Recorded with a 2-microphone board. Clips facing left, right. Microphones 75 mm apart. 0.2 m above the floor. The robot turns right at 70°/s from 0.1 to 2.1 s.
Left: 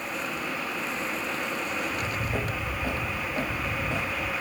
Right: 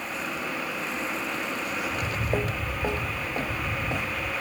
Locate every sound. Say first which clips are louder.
1.9 s footsteps: right 2 dB; 35° right (ahead or behind), 1.0 m; by 4.3 s 10° right (ahead or behind), 2 m